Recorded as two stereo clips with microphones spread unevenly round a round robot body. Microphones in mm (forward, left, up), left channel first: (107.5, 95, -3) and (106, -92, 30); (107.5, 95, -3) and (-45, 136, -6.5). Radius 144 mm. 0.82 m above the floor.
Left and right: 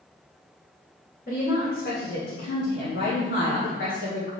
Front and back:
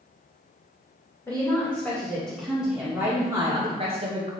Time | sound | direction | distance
1.3 | a woman speaking | 55° left | 2.5 m